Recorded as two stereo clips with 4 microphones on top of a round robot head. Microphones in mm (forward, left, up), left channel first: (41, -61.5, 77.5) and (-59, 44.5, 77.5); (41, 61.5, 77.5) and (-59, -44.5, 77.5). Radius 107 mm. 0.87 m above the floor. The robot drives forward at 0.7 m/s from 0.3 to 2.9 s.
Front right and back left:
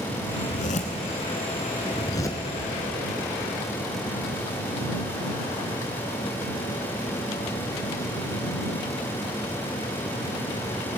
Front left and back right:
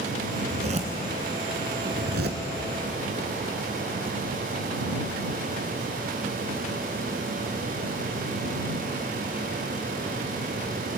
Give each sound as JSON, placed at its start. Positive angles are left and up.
{"t": 0.4, "sound": "a zipper", "azimuth_deg": -80, "distance_m": 2.0}